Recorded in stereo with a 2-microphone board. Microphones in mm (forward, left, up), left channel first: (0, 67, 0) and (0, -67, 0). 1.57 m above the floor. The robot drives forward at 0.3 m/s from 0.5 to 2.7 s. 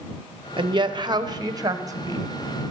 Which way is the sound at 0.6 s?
40° right (ahead or behind).